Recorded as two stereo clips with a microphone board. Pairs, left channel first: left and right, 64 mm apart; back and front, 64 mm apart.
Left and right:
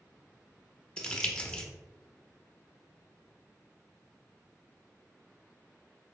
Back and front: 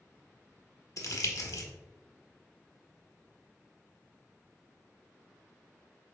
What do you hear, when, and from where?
1.0 s crumpling: 165° left, 0.6 m